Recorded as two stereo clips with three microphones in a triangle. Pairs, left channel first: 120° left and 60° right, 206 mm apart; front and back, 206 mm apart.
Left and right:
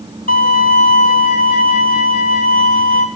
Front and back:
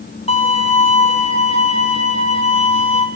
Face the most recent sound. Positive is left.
turn(degrees=-60)